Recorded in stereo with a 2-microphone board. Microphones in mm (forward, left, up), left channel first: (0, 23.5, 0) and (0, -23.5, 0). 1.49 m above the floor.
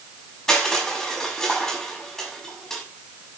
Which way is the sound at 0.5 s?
10° left (ahead or behind).